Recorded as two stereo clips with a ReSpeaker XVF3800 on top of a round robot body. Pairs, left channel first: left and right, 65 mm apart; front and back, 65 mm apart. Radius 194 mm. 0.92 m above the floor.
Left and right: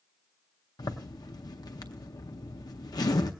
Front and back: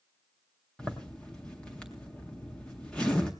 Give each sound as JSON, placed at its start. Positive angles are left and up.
{"t": 0.8, "sound": "a zipper", "azimuth_deg": 80, "distance_m": 0.5}